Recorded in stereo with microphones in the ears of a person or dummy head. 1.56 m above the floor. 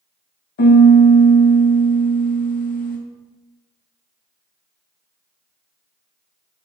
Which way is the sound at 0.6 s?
45° left (ahead or behind).